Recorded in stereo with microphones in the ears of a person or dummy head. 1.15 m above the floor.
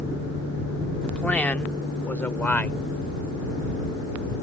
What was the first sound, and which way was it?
A man speaking, 10° left (ahead or behind).